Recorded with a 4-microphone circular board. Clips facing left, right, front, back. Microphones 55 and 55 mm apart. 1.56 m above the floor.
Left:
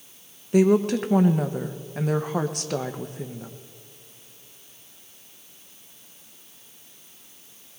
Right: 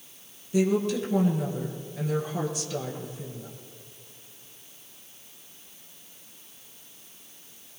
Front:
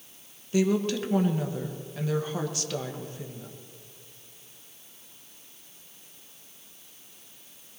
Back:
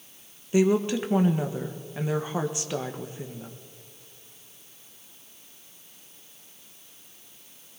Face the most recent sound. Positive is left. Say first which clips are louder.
# left 5 dB, back 3 dB
turn(degrees=115)